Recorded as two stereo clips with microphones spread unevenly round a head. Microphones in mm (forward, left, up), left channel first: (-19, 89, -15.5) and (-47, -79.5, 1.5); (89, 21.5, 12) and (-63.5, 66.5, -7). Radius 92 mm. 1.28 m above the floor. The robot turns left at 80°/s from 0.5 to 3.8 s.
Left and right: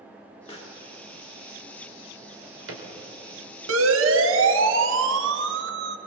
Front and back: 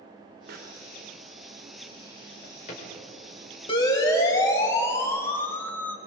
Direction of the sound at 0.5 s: 140° left.